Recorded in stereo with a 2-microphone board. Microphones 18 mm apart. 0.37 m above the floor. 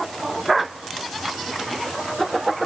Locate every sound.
Only background noise.